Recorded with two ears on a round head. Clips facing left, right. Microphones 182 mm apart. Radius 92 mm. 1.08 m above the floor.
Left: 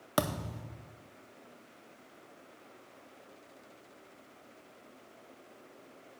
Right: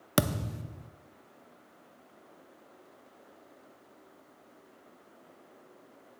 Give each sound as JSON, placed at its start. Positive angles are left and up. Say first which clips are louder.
{"t": 0.2, "sound": "a thud", "louder": "right 3 dB", "side_deg": -30, "distance_m": 0.6}